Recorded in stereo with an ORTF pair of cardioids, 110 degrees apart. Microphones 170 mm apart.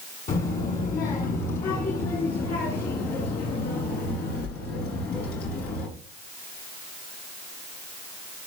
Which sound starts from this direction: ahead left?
A child speaking, at 0.3 s.